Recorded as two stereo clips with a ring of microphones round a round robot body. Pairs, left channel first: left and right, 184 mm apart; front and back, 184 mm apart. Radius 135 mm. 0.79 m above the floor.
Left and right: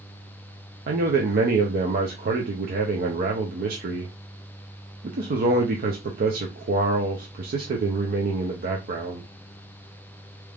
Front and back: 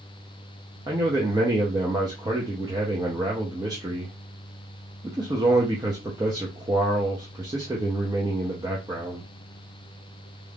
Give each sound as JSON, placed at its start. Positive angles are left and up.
{"t": 0.9, "sound": "a man speaking", "azimuth_deg": -110, "distance_m": 0.6}